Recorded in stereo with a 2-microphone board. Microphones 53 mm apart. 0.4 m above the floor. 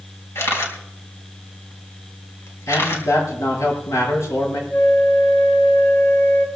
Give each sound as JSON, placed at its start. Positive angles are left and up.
{"t": 0.3, "sound": "a camera shutter", "side_deg": 60, "distance_m": 3.5}
{"t": 2.7, "sound": "a man speaking", "side_deg": 70, "distance_m": 6.5}
{"t": 4.7, "sound": "a flute", "side_deg": 30, "distance_m": 1.4}